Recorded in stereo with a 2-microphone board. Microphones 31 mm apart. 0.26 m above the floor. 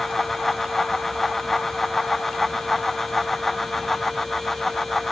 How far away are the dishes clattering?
No dishes clattering in this recording.